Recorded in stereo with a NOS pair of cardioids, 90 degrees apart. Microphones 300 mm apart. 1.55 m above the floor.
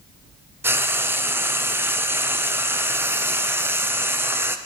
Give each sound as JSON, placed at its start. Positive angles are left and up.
{"t": 0.6, "sound": "frying", "azimuth_deg": -5, "distance_m": 0.6}